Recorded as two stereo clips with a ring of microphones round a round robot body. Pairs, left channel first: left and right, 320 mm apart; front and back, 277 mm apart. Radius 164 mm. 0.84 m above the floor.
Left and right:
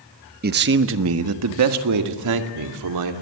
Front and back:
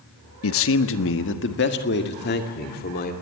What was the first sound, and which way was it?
A man speaking, 30° right.